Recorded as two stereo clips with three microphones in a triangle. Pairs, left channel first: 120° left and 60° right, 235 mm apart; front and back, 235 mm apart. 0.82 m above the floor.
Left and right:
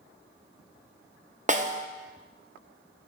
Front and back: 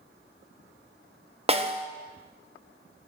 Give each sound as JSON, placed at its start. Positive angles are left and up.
{"t": 1.5, "sound": "a snare drum", "azimuth_deg": -115, "distance_m": 0.6}